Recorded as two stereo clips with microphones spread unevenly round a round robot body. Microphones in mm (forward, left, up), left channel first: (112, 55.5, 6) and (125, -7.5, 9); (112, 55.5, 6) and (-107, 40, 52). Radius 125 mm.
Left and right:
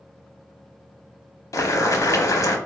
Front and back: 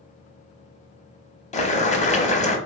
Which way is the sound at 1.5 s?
65° left.